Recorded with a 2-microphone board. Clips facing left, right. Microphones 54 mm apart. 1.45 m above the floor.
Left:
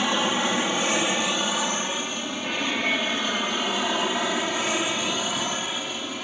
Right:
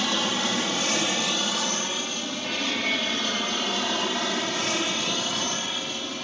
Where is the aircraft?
15° left (ahead or behind); by 6.2 s 10° left (ahead or behind).